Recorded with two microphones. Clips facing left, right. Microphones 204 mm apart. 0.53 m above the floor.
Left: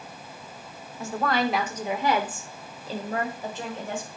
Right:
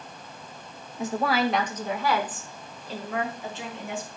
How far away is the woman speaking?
About 1.0 m.